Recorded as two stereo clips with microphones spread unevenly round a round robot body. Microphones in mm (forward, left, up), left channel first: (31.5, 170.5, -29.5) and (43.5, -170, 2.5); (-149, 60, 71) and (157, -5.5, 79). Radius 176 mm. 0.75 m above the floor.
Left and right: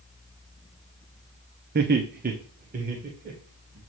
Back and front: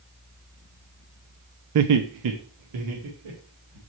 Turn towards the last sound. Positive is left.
turn(degrees=-20)